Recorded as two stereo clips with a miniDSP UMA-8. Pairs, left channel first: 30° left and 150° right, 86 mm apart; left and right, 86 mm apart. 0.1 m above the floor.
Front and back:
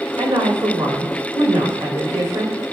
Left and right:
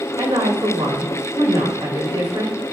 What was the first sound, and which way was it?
A woman speaking, 130° right.